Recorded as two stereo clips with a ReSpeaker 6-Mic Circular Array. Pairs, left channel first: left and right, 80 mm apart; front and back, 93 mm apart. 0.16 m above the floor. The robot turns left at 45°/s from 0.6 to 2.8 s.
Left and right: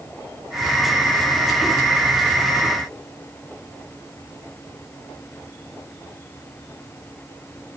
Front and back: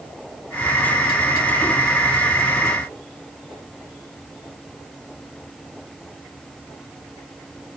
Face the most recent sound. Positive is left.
No sound to turn to.